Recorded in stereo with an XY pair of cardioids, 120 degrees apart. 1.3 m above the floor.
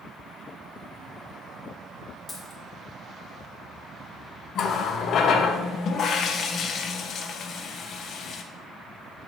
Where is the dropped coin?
15° left, 2 m.